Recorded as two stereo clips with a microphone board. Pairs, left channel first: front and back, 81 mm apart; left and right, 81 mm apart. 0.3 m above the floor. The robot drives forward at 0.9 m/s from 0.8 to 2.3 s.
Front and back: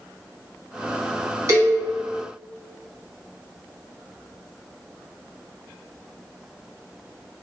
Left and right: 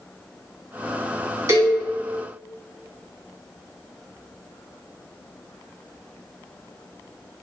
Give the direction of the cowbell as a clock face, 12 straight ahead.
4 o'clock.